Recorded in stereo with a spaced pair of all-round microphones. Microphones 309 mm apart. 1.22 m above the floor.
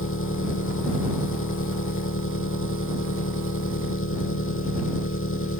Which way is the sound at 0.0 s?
40° left (ahead or behind).